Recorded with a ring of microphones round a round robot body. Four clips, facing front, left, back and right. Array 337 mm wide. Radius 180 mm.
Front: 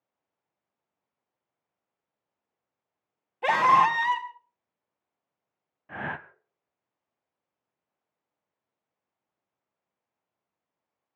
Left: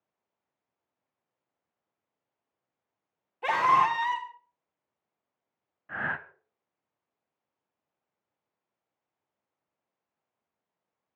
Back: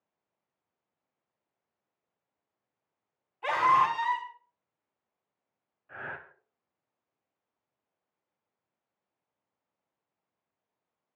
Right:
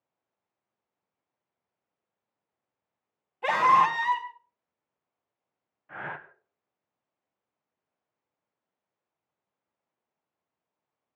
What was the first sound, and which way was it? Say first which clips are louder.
A scream: right 2 dB, front 4 dB; straight ahead.